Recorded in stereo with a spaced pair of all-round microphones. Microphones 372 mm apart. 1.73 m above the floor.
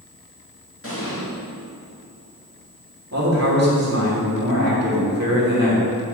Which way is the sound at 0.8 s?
35° left (ahead or behind).